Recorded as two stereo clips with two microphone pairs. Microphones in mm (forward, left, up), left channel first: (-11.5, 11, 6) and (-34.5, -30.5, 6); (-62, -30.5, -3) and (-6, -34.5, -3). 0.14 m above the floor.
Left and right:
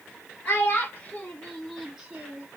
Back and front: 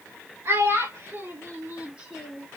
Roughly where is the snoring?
I don't hear snoring.